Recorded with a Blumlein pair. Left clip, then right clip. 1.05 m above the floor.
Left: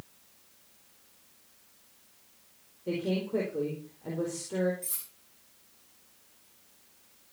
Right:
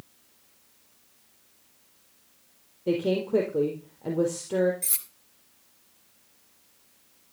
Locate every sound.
2.9 s a woman speaking: 70° right, 4 m
4.8 s cutlery clinking: 65° right, 2.5 m